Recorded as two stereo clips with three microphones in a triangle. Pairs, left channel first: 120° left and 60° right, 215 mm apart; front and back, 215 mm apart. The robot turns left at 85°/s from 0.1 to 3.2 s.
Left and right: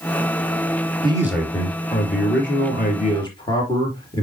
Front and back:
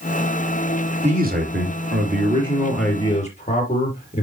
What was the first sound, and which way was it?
A man speaking, 120° right.